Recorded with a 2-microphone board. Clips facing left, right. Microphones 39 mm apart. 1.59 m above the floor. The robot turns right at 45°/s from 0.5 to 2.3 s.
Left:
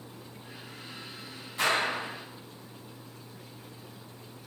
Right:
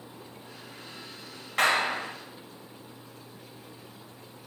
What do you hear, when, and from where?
1.6 s a clap: 70° right (ahead or behind), 6 m; by 2.1 s 85° right, 6 m